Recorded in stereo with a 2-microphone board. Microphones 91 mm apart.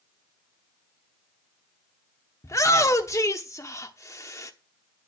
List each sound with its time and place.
2.4 s a shout: 35° left (ahead or behind), 0.9 m